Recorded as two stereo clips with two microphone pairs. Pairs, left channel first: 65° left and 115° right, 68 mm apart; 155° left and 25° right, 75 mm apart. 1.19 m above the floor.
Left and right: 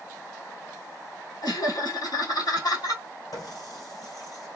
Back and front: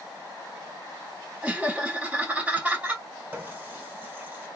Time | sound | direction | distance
1.4 | laughter | 50° left | 3 m
3.3 | a running tap | 45° left | 2.5 m